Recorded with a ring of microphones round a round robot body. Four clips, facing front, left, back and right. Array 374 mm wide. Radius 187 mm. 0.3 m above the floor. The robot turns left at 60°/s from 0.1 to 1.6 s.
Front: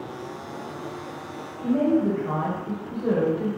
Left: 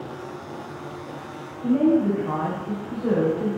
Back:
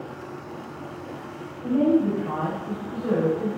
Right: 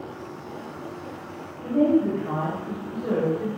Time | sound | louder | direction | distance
1.6 | a woman speaking | left 1 dB, back 1 dB | 50° left | 1.2 m